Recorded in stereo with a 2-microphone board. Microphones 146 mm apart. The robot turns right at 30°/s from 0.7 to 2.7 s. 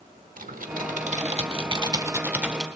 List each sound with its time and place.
0.4 s typing on a keyboard: 60° right, 1.2 m; by 2.6 s 5° right, 1.2 m